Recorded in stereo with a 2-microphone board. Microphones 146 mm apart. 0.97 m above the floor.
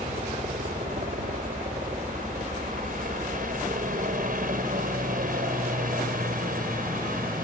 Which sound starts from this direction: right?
A helicopter, at 0.0 s.